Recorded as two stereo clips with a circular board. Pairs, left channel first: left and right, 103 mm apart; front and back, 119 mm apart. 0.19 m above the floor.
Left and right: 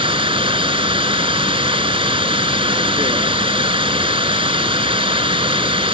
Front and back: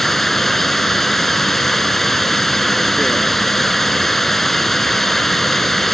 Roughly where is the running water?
Right.